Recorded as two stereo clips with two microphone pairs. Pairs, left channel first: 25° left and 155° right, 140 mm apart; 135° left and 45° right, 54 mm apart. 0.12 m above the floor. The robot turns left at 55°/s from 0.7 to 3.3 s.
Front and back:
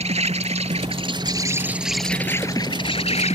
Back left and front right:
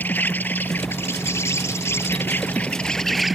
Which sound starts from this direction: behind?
An insect, at 0.0 s.